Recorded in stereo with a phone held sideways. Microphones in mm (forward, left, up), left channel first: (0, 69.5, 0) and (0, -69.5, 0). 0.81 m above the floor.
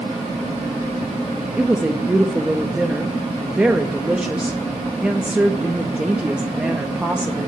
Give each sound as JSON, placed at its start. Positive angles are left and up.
{"t": 1.6, "sound": "a woman speaking", "side_deg": -5, "distance_m": 0.7}